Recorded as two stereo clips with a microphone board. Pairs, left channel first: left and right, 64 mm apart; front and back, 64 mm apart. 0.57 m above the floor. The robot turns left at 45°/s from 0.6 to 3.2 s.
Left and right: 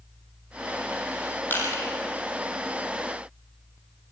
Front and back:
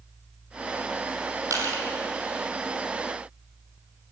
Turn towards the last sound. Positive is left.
turn(degrees=70)